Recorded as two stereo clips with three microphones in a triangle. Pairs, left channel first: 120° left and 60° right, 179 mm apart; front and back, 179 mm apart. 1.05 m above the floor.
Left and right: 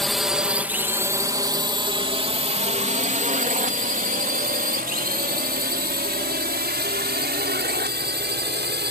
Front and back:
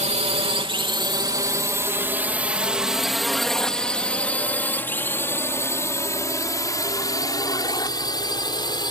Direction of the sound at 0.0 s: 150° right.